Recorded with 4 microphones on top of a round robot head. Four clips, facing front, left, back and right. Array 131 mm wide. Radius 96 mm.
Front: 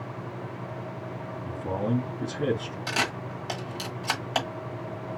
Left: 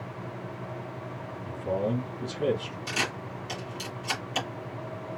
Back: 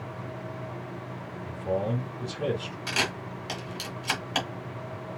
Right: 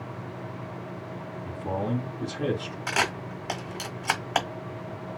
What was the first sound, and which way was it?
A man speaking, 45° right.